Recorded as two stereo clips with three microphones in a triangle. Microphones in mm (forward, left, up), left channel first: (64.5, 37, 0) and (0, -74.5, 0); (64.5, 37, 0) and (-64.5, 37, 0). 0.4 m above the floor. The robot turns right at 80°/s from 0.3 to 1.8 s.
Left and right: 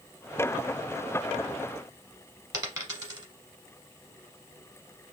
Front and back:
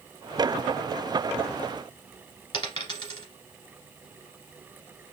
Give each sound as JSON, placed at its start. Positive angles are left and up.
{"t": 2.5, "sound": "a dropped coin", "azimuth_deg": -55, "distance_m": 1.3}